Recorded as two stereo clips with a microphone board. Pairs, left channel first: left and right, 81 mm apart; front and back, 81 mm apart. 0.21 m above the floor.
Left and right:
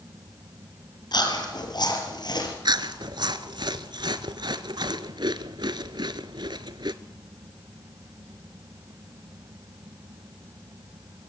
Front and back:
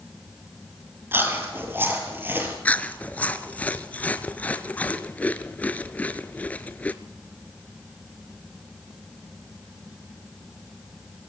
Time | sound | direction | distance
1.1 | chewing | 120° left | 3.5 m
2.6 | chewing | 70° right | 0.9 m